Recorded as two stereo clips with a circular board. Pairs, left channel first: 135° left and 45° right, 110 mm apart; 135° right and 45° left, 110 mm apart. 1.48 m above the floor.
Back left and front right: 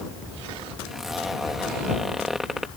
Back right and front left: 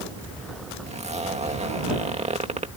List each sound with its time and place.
0.9 s a zipper: 40° left